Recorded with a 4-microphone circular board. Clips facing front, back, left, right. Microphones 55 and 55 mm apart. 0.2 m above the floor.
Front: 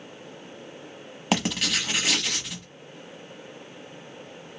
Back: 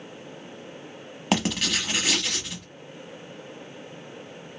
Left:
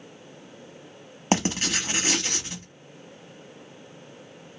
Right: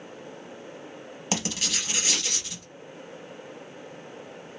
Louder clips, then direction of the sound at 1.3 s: Back 1 dB, left 6 dB; 90° left.